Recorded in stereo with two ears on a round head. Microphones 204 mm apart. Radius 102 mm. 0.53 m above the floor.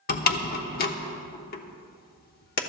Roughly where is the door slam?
Left.